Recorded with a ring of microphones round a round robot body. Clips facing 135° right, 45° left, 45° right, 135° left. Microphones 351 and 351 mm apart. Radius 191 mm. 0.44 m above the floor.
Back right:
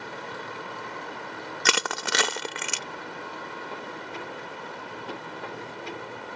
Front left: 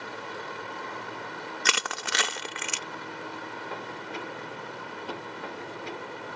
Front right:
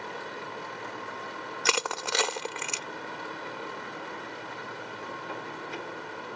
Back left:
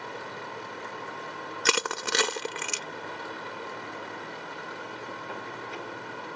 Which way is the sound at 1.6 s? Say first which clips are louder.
Back right 8 dB, back left 2 dB; 160° right.